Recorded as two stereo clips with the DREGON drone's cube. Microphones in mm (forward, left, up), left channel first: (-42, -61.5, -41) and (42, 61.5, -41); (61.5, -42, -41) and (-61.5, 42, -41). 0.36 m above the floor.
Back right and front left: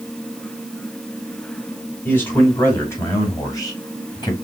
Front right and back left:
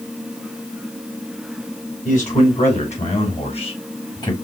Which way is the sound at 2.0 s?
50° right.